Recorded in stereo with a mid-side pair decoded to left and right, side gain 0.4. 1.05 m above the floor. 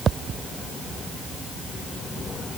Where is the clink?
No clink in this recording.